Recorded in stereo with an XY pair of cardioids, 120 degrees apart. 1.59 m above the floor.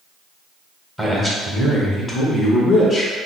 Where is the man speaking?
5° left, 1.0 m; by 3.1 s 30° left, 2.0 m.